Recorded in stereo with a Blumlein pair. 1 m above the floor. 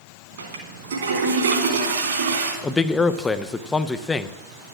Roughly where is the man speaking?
Ahead.